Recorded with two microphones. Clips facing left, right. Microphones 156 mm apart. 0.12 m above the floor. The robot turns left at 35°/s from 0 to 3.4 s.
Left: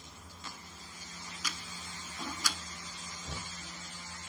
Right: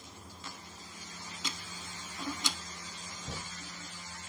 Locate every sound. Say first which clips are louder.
1.4 s ticking: right 1 dB; 25° right (ahead or behind), 0.7 m; by 2.6 s 20° right (ahead or behind), 0.7 m
3.2 s knocking: right 1 dB; 20° right (ahead or behind), 6 m; by 3.6 s 15° right (ahead or behind), 6 m